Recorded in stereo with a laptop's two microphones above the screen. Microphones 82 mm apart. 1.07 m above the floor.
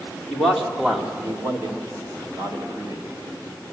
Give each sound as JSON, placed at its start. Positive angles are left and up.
{"t": 0.3, "sound": "a man speaking", "side_deg": 10, "distance_m": 2.5}